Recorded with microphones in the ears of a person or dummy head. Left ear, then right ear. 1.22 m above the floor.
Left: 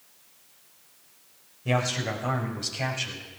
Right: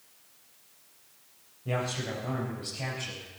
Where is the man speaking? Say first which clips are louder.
Left 5 dB; 85° left, 4.5 m; by 3.3 s 80° left, 6.5 m.